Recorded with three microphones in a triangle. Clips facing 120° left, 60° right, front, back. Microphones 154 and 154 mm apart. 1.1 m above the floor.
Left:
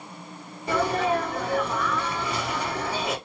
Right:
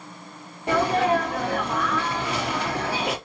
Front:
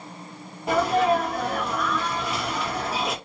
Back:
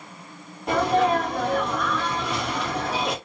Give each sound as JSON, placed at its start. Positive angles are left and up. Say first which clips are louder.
{"t": 0.7, "sound": "a sneeze", "louder": "right 3 dB, even", "azimuth_deg": -85, "distance_m": 1.4}